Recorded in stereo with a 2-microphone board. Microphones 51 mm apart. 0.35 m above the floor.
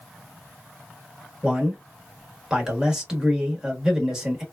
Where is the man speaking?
15° right (ahead or behind), 0.9 m.